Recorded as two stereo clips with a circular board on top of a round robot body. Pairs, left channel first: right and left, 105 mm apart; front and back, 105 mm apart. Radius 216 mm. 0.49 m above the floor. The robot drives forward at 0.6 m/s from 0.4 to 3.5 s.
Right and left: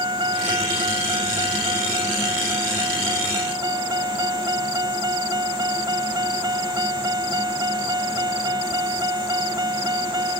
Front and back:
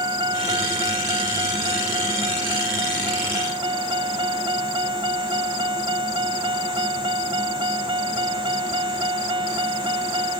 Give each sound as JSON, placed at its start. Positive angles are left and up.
{"t": 0.0, "sound": "a vehicle", "azimuth_deg": 135}